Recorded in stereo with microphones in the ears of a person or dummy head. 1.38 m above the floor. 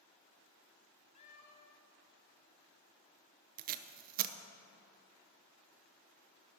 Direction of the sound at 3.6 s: 45° right (ahead or behind).